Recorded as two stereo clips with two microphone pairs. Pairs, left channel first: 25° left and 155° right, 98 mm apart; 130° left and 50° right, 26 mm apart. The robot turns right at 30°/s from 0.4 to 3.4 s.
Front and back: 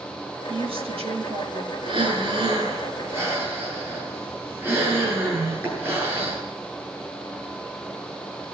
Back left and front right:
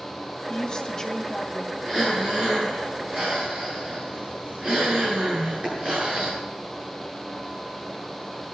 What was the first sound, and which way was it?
A woman speaking, straight behind.